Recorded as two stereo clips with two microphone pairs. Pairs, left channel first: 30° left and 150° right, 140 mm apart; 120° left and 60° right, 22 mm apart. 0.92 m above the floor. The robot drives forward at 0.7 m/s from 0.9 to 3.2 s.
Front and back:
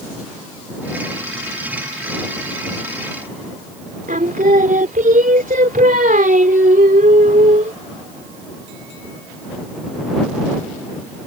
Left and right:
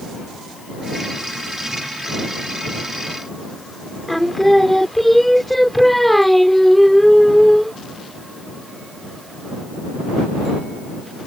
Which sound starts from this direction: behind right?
Singing, at 4.1 s.